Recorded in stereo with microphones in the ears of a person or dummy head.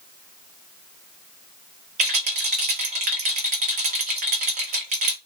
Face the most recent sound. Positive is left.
turn(degrees=-35)  # may be behind; listen again after turning